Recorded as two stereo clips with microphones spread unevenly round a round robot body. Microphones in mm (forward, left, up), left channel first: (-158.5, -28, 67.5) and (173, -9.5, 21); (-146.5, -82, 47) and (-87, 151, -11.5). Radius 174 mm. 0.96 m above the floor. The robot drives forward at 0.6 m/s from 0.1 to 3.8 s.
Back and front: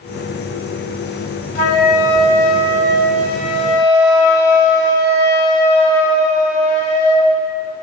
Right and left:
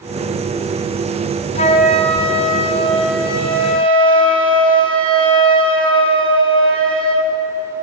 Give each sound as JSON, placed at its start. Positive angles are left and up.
{"t": 1.6, "sound": "a flute", "azimuth_deg": -170, "distance_m": 1.6}